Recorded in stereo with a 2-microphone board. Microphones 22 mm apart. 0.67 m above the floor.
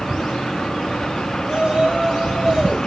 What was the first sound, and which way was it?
A shout, 40° right (ahead or behind).